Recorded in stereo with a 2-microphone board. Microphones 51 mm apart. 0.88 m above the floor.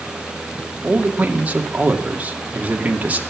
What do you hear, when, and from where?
0.8 s a man speaking: 30° right (ahead or behind), 2 m